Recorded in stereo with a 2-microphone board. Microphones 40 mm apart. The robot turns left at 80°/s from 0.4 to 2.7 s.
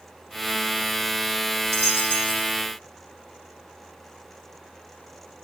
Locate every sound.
1.5 s a dropped coin: 75° right (ahead or behind), 7 m; by 2.5 s 30° right (ahead or behind), 7 m